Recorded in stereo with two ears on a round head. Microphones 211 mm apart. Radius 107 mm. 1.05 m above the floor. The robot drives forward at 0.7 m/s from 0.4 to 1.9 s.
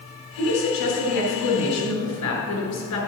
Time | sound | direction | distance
0.4 | a woman speaking | 75° left (ahead or behind) | 4 m